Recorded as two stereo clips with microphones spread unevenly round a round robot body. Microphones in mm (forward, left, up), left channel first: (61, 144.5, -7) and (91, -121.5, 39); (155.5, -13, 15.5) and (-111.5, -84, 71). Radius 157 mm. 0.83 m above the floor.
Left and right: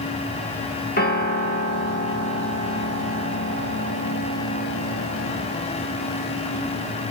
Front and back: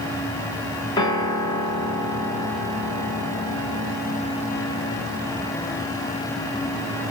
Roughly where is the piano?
Left.